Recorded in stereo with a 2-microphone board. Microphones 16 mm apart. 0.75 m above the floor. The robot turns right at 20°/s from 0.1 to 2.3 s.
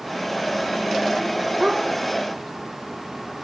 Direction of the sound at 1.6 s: 75° right (ahead or behind).